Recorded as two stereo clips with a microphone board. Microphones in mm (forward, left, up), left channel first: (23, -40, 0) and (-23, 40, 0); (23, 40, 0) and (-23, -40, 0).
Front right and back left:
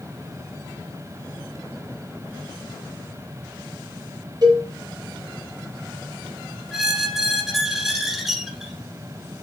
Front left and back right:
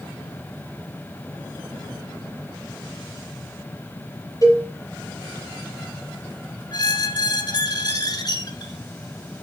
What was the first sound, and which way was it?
A cowbell, 100° left.